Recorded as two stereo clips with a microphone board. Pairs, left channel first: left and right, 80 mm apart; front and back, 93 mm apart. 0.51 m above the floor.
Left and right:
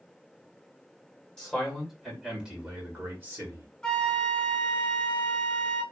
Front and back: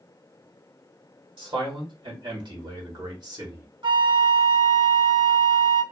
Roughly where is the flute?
Behind.